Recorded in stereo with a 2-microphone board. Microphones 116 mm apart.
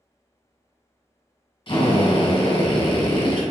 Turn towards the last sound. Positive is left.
turn(degrees=45)  # may be behind; listen again after turning